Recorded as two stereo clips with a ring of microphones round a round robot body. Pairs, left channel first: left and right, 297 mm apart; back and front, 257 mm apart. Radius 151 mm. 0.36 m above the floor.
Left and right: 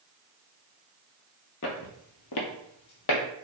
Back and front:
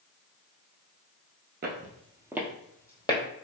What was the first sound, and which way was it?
Footsteps, 50° left.